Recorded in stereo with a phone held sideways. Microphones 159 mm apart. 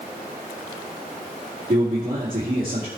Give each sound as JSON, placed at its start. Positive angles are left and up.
{"t": 1.7, "sound": "a man speaking", "side_deg": -65, "distance_m": 2.5}